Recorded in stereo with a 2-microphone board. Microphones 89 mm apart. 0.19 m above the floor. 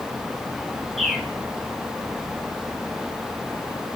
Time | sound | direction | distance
1.0 | a bird | centre (ahead or behind) | 0.8 m